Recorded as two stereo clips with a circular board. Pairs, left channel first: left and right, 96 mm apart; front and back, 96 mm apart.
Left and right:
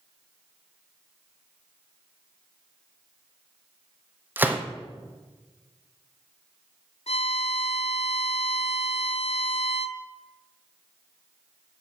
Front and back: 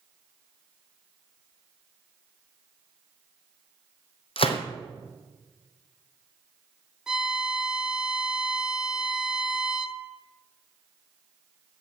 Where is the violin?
95° left, 0.5 m.